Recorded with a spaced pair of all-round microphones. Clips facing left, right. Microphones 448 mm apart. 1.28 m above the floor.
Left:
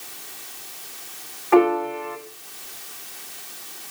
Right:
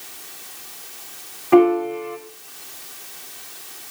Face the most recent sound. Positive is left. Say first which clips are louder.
# right 3 dB
turn(degrees=-50)  # may be behind; listen again after turning